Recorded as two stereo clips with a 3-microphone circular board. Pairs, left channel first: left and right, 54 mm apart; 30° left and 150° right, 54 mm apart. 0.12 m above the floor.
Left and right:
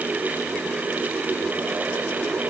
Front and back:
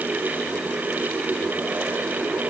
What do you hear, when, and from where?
Only background noise.